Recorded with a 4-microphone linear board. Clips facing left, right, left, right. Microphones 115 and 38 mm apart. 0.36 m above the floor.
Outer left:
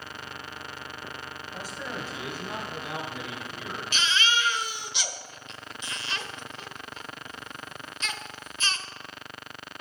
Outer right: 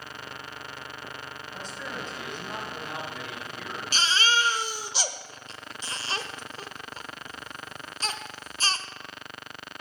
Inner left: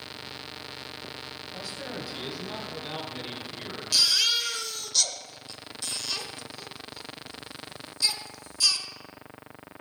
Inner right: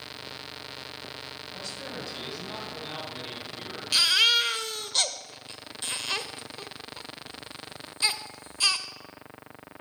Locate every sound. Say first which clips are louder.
1.5 s a man speaking: outer left 1 dB, inner left 2 dB; 10° left (ahead or behind), 2.5 m; by 3.8 s 5° left (ahead or behind), 3.5 m
3.9 s a baby crying: outer right 2 dB, inner right 3 dB; 35° right (ahead or behind), 0.6 m